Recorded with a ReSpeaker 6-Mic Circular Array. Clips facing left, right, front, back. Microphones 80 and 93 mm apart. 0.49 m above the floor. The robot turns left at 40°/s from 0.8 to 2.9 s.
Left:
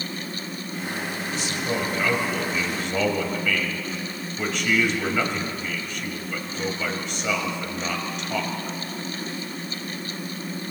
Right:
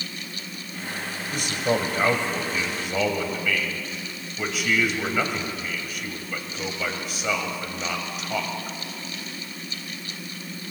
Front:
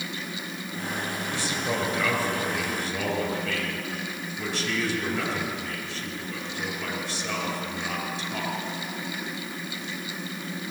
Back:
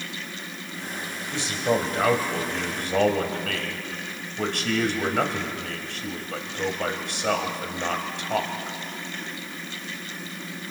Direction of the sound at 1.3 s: 110° right.